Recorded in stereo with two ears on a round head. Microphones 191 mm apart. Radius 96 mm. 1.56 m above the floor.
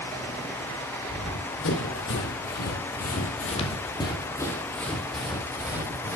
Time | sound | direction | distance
1.1 | running footsteps | 70° left (ahead or behind) | 4 m